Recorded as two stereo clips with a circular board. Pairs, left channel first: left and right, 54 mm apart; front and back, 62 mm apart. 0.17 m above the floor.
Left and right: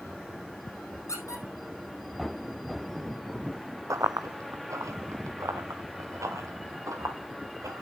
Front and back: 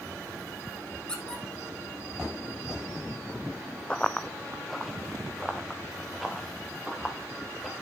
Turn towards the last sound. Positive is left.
turn(degrees=-95)